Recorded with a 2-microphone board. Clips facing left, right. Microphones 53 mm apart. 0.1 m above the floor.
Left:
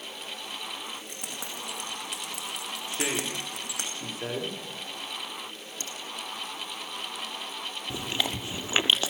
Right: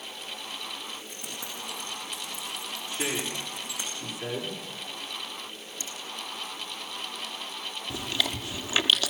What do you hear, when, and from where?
0.9 s keys jangling: 75° left (ahead or behind), 6.5 m; by 3.9 s 70° left (ahead or behind), 5 m
2.9 s a woman speaking: 40° left (ahead or behind), 9 m
5.8 s a finger snap: 55° left (ahead or behind), 3 m
7.9 s chewing: 25° left (ahead or behind), 1.3 m